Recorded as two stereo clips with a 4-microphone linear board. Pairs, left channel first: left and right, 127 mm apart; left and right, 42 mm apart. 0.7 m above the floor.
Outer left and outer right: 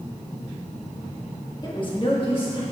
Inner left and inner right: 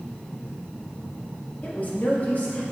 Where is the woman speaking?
35° left (ahead or behind), 1.1 m; by 2.6 s 40° left (ahead or behind), 1.9 m.